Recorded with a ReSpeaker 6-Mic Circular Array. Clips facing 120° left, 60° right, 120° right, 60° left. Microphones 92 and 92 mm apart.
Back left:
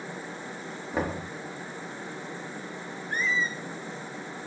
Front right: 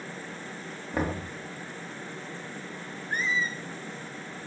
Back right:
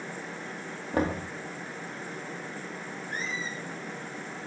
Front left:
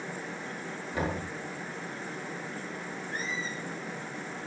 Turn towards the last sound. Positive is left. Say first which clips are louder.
# back left 1 dB, back right 1 dB
turn(degrees=-130)